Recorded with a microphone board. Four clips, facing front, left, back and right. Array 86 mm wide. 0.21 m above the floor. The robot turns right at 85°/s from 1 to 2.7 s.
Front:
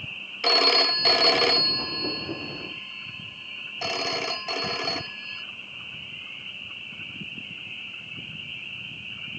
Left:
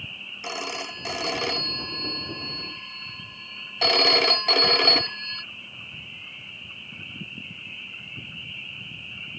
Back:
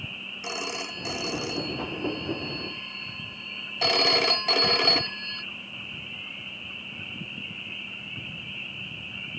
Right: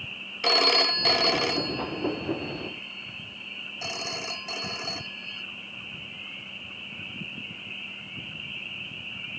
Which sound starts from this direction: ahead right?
A phone ringing, at 0.4 s.